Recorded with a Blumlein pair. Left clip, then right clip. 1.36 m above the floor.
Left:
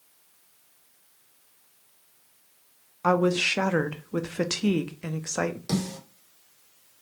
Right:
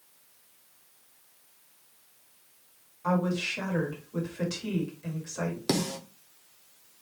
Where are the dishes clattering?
I don't hear dishes clattering.